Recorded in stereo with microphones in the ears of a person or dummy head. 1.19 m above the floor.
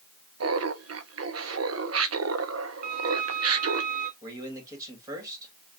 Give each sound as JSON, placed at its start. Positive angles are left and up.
{"t": 0.4, "sound": "laughter", "side_deg": -65, "distance_m": 0.7}
{"t": 2.8, "sound": "a violin", "side_deg": -50, "distance_m": 0.7}
{"t": 4.2, "sound": "a man speaking", "side_deg": -20, "distance_m": 2.0}